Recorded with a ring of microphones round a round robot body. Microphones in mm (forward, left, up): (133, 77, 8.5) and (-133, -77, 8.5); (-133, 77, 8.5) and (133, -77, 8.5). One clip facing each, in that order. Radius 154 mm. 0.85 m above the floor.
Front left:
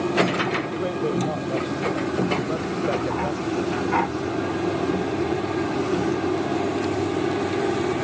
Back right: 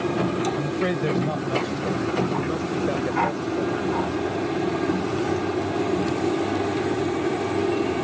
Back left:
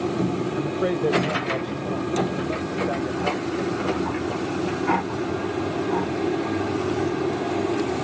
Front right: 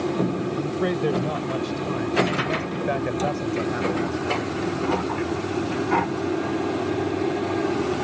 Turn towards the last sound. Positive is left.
turn(degrees=-35)